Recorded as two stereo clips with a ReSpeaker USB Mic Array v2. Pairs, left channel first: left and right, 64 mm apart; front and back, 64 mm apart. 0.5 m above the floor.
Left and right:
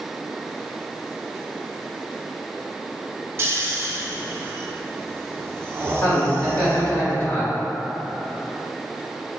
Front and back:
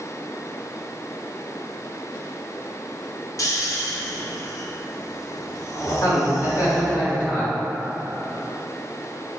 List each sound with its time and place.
3.4 s snoring: 35° right, 0.5 m
6.0 s a man speaking: 40° left, 1.9 m